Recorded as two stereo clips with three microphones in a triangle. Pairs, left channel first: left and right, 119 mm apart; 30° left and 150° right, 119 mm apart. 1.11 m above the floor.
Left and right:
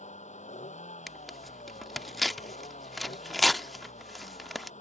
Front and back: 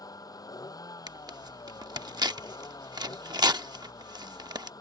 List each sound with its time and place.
0.0 s a vehicle: 90° left
1.1 s tearing paper: straight behind